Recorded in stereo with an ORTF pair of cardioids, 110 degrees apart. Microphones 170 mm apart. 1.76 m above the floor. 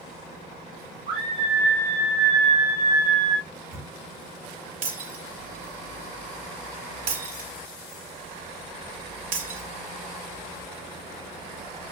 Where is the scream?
65° right, 10 m; by 3.4 s 80° right, 10.5 m.